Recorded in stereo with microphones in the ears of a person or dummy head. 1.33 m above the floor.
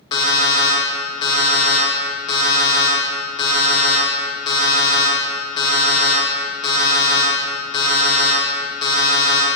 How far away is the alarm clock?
About 0.8 m.